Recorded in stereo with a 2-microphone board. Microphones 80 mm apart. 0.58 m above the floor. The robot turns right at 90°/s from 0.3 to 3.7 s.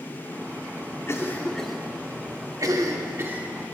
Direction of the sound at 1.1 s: 40° left (ahead or behind).